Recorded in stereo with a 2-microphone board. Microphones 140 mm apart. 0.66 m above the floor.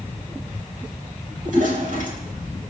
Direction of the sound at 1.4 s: 70° right (ahead or behind).